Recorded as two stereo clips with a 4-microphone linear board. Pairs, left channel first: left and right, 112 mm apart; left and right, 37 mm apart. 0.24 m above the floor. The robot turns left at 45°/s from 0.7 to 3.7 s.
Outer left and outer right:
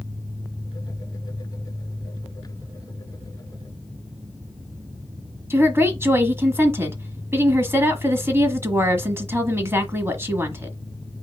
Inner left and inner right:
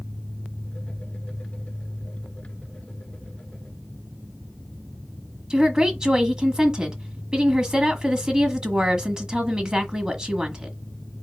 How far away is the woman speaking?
About 1.3 m.